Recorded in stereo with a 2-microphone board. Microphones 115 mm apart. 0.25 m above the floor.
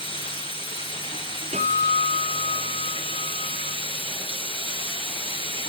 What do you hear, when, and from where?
0.0 s running water: 50° left (ahead or behind), 3 m
1.5 s a guitar: 80° right, 3 m